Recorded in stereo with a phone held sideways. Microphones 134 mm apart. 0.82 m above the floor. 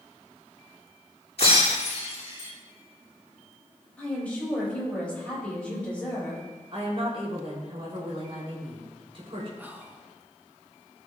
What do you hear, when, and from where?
1.4 s breaking glass: 50° left (ahead or behind), 4 m
4.0 s a woman speaking: 10° left (ahead or behind), 4.5 m
6.7 s a woman speaking: 45° right (ahead or behind), 3 m
9.6 s whispering: 15° right (ahead or behind), 1.2 m